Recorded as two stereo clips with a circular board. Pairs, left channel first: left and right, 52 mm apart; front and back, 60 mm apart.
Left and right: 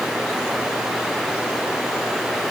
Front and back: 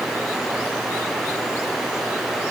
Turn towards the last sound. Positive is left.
No sound to turn to.